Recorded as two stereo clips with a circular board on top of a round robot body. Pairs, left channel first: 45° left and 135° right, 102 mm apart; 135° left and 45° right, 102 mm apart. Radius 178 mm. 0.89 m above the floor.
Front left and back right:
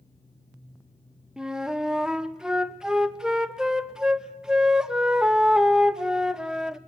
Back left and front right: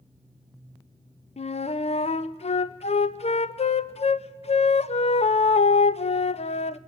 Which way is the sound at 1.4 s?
140° left.